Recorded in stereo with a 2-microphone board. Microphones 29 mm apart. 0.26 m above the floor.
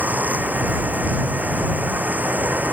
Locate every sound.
0.0 s running water: 85° right